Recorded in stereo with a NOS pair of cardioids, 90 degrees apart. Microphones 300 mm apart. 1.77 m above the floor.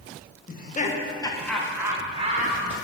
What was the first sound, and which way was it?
Laughter, 30° left.